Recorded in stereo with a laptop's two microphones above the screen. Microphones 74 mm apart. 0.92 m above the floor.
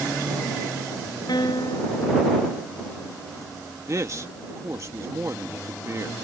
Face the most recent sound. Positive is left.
turn(degrees=-45)  # may be behind; listen again after turning